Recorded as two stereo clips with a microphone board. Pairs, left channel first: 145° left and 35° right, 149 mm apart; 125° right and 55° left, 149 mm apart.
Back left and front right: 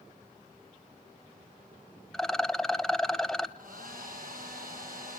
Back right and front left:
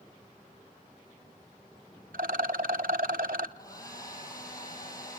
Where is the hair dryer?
55° right, 5 m.